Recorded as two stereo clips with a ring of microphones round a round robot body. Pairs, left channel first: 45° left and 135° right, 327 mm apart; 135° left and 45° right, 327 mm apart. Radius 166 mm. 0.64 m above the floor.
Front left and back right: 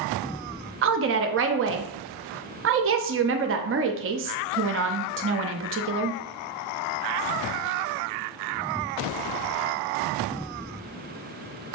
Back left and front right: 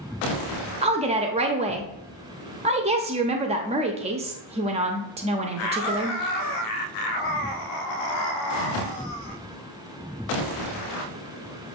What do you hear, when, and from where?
0.8 s a woman speaking: 110° right, 0.6 m